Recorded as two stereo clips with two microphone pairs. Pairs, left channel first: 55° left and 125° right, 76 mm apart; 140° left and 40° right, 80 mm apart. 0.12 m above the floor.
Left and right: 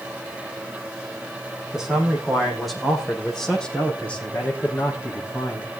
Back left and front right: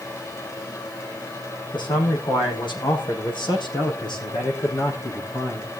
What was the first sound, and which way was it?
A man speaking, 155° left.